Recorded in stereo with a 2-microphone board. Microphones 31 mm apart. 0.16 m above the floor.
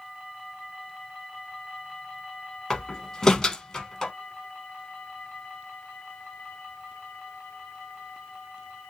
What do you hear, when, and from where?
2.7 s a door slam: 20° left (ahead or behind), 0.8 m